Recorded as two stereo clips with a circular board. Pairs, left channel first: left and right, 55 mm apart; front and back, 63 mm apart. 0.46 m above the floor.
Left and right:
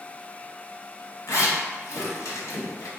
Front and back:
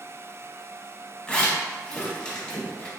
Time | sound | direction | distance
1.3 | a zipper | 75° left | 1.0 m